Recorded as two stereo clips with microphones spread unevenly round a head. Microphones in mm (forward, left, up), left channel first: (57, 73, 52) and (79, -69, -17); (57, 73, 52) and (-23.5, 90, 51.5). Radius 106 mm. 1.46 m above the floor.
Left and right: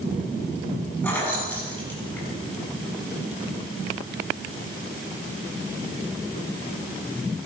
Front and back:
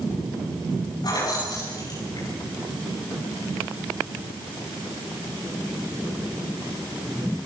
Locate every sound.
1.0 s keys jangling: 25° left, 8 m